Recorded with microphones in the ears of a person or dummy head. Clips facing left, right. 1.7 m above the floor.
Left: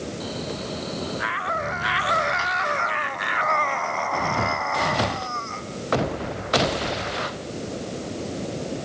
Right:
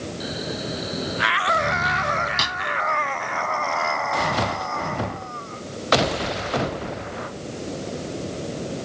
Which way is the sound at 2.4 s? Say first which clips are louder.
Left 1 dB; 55° right (ahead or behind).